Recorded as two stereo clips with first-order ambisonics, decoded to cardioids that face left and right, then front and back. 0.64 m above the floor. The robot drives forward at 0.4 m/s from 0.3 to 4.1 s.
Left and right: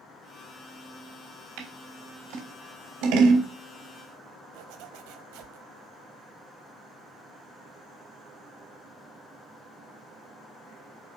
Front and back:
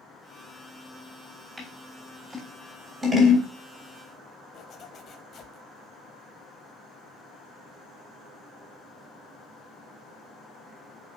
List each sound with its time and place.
1.6 s scissors: 90° right, 3.5 m; by 3.5 s 105° right, 3.5 m
4.5 s a zipper: 65° right, 1.1 m